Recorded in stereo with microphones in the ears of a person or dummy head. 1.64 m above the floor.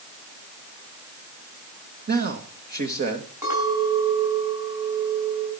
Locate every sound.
2.1 s a man speaking: 50° right (ahead or behind), 2.5 m
3.4 s a clink: 15° right (ahead or behind), 7.5 m